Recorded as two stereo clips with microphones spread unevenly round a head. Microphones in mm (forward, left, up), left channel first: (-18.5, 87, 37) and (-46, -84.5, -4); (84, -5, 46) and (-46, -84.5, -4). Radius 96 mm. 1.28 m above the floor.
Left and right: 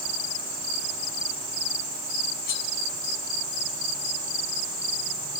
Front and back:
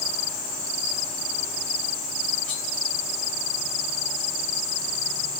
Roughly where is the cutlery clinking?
Left.